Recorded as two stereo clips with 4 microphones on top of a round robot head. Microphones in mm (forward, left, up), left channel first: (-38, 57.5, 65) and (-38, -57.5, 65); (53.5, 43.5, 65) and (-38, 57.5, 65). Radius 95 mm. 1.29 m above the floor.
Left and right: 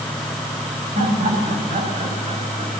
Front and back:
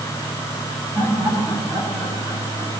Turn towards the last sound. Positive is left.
turn(degrees=-120)